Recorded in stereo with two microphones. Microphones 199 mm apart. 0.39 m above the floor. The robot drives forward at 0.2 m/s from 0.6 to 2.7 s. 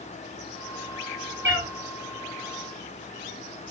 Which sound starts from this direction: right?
A cat meowing, at 1.4 s.